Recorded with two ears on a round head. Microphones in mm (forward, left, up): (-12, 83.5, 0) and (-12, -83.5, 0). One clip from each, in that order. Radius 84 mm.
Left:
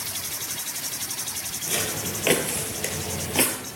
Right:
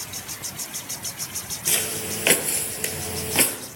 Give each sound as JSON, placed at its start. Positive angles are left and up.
{"t": 1.7, "sound": "footsteps", "side_deg": -40, "distance_m": 1.9}